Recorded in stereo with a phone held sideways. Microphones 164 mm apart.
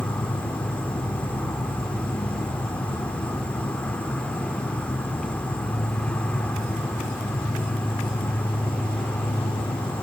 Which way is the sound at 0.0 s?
10° left (ahead or behind).